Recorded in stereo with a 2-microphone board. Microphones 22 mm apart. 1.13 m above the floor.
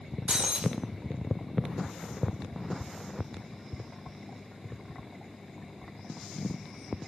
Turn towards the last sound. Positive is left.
turn(degrees=-50)  # may be behind; listen again after turning